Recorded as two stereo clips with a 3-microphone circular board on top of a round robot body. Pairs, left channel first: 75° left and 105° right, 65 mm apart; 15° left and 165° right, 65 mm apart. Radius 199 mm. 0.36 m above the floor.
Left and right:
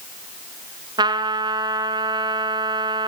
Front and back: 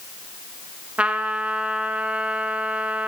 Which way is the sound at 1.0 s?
90° right.